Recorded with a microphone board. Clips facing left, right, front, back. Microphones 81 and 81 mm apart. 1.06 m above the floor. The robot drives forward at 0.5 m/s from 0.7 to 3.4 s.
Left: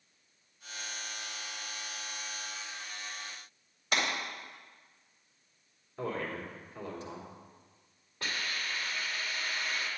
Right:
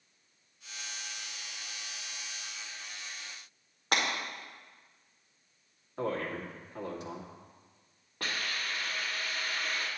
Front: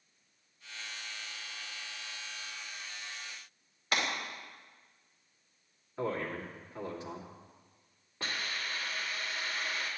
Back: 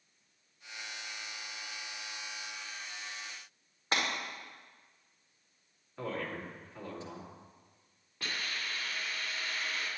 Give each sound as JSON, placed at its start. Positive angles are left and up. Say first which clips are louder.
{"t": 3.9, "sound": "breaking glass", "louder": "right 1 dB, even", "azimuth_deg": -120, "distance_m": 2.0}
{"t": 6.0, "sound": "a man speaking", "louder": "right 2 dB, front 3 dB", "azimuth_deg": -80, "distance_m": 2.5}
{"t": 8.2, "sound": "a hiss", "louder": "right 1 dB, front 1 dB", "azimuth_deg": -60, "distance_m": 1.8}